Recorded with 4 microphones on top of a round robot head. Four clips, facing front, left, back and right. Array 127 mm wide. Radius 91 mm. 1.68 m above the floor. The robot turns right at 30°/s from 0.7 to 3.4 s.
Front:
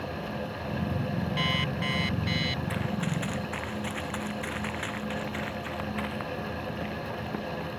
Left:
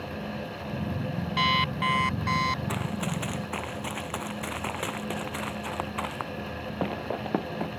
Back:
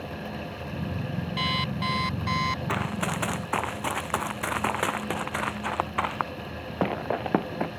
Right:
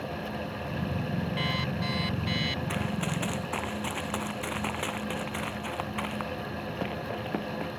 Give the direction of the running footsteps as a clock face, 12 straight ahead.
6 o'clock.